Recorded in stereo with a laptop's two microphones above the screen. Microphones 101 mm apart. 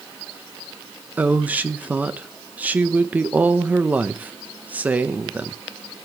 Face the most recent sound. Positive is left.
turn(degrees=-15)  # may be behind; listen again after turning